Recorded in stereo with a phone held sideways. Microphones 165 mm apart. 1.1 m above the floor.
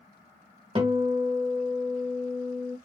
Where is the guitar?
35° right (ahead or behind), 1.3 m.